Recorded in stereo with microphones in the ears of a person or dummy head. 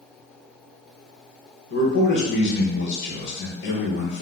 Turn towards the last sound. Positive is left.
turn(degrees=70)  # may be behind; listen again after turning